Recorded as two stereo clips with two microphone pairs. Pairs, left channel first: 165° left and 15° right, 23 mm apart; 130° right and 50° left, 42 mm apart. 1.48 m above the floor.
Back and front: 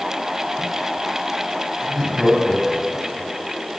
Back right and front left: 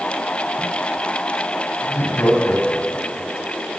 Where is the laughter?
105° right, 10 m; by 3.3 s 115° right, 9 m.